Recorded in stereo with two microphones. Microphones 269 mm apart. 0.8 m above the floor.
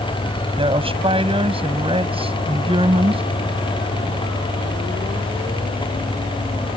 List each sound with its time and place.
0.6 s a woman speaking: 20° right (ahead or behind)